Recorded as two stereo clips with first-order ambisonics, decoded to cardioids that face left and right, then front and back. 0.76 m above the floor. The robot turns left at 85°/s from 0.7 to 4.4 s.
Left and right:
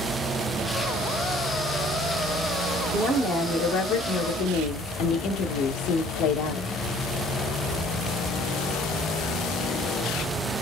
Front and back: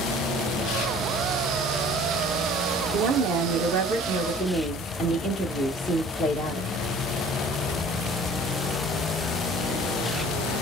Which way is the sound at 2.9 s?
145° right.